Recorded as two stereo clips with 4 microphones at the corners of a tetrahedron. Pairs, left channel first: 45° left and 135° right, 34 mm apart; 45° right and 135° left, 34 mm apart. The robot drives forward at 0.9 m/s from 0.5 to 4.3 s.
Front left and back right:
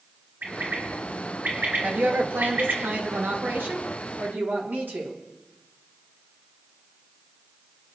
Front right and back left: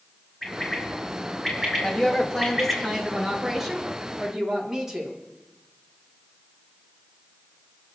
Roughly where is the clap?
I don't hear a clap.